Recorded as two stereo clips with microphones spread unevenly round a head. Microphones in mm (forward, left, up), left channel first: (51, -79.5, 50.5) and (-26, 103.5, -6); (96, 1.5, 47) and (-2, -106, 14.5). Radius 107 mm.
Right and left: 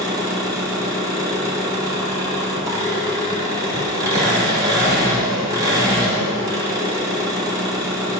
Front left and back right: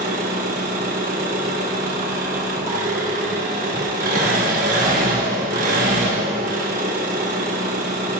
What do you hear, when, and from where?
0.0 s an engine running: 170° right, 1.9 m